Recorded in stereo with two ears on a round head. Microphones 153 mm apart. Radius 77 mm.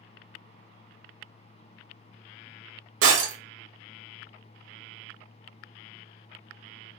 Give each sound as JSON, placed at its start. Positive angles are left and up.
{"t": 3.0, "sound": "breaking glass", "side_deg": -85, "distance_m": 1.7}